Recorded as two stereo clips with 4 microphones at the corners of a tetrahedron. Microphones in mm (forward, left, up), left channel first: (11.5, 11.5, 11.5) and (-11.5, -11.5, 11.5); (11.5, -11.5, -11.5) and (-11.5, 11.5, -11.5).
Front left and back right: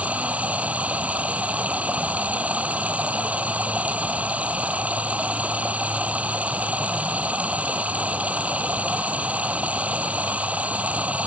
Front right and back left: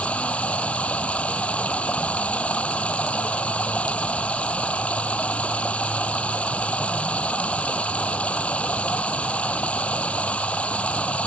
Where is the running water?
95° right.